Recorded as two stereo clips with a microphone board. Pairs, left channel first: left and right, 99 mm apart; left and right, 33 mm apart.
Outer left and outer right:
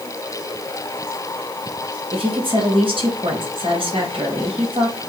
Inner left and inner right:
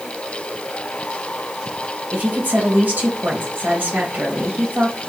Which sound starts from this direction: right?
A woman speaking, at 2.1 s.